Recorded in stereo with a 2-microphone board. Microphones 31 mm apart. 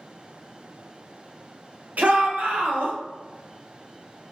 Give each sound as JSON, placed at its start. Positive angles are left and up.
{"t": 2.0, "sound": "a shout", "side_deg": -65, "distance_m": 1.2}